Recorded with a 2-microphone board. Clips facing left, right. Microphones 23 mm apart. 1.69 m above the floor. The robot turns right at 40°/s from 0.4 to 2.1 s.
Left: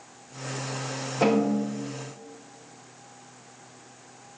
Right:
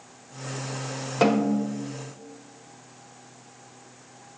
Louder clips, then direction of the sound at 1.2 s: Right 1 dB; 60° right (ahead or behind).